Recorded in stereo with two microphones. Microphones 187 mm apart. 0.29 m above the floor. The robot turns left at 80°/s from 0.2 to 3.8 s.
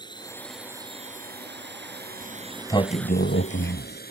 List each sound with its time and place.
0.0 s a drone: 25° left (ahead or behind); by 4.1 s 55° left (ahead or behind)
2.2 s a sliding door: 160° right; by 4.0 s 75° left